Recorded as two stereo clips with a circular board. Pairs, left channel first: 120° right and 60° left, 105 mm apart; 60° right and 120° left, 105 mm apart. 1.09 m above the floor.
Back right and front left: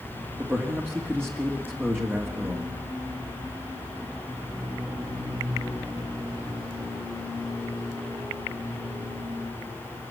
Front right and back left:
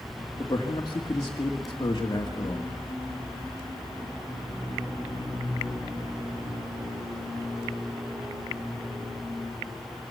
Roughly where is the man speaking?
Ahead.